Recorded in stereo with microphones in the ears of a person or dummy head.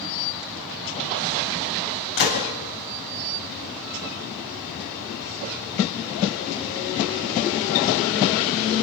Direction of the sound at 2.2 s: 50° left (ahead or behind).